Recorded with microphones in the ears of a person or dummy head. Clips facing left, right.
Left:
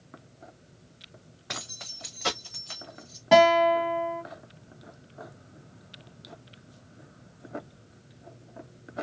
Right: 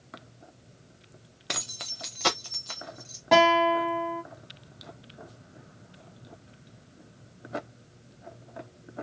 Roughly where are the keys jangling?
Right.